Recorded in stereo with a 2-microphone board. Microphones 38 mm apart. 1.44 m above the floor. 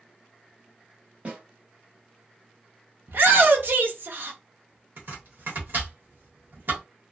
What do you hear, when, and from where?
1.2 s a snare drum: 40° right (ahead or behind), 1.2 m
3.1 s a shout: 70° right (ahead or behind), 0.7 m
5.0 s chopping: 70° right (ahead or behind), 1.2 m